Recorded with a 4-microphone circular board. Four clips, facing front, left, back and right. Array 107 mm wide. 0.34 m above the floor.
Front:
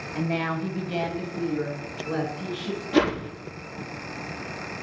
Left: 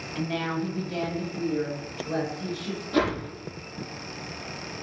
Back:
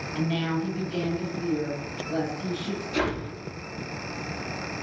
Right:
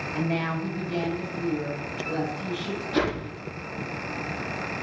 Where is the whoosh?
Straight ahead, 4 m.